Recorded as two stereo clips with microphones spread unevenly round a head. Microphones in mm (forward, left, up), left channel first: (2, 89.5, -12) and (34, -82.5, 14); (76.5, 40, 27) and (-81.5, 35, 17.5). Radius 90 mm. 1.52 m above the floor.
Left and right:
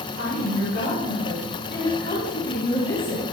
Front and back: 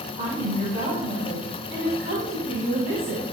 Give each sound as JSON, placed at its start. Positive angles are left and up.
{"t": 0.2, "sound": "a woman speaking", "azimuth_deg": 130, "distance_m": 4.5}